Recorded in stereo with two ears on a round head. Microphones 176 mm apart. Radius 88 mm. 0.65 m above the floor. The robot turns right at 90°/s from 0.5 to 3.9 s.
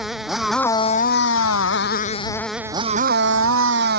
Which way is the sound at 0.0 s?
Straight ahead.